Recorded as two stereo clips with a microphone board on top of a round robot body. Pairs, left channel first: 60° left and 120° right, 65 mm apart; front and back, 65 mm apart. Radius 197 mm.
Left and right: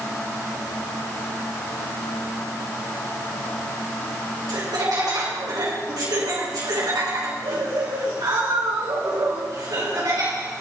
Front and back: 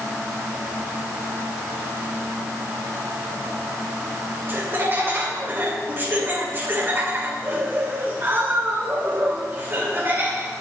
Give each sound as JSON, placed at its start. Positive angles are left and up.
{"t": 4.5, "sound": "laughter", "azimuth_deg": -125, "distance_m": 4.5}